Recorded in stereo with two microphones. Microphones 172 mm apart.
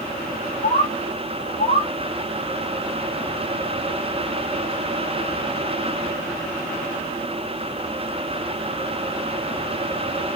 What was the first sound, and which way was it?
A bird, 60° left (ahead or behind).